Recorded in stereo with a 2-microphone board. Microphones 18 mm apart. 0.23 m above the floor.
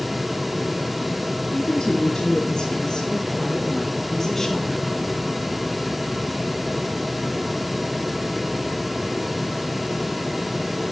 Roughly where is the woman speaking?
Left.